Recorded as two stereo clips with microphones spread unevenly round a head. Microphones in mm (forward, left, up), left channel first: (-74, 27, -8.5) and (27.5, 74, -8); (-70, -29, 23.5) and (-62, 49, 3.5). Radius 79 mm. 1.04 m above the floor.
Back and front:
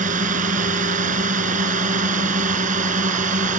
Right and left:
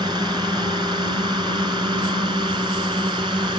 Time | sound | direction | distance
0.0 | a drone | 25° left | ?